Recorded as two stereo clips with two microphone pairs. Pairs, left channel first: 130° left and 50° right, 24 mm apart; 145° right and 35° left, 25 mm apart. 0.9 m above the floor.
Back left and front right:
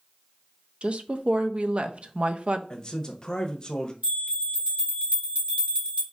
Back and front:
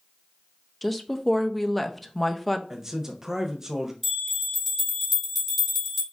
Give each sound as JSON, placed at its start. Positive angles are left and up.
{"t": 0.8, "sound": "a woman speaking", "azimuth_deg": -55, "distance_m": 0.5}
{"t": 2.7, "sound": "a man speaking", "azimuth_deg": 95, "distance_m": 0.8}
{"t": 4.0, "sound": "a bell", "azimuth_deg": -55, "distance_m": 1.9}